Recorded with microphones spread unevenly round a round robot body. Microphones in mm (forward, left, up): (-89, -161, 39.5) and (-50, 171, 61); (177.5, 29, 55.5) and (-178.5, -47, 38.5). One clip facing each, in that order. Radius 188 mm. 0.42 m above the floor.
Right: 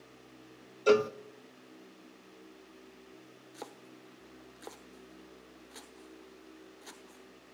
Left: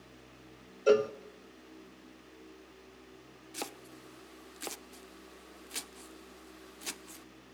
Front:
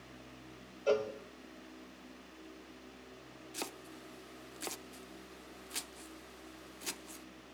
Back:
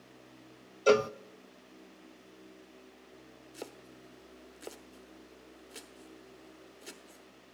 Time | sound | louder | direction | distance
0.9 | a cowbell | even, back 7 dB | 170° right | 0.6 m
3.5 | chopping | left 4 dB, even | 70° left | 0.9 m